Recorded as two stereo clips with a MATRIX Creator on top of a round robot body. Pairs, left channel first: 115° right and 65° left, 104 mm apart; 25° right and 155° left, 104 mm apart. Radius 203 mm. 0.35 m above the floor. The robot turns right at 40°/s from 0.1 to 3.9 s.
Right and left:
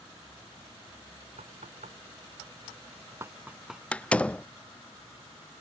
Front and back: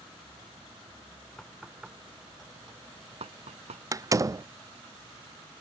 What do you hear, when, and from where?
1.4 s knocking: 60° left; by 3.8 s 160° left
3.9 s a door slam: straight behind